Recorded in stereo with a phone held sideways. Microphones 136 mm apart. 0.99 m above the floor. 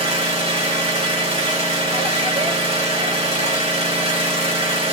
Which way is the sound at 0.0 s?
40° right (ahead or behind).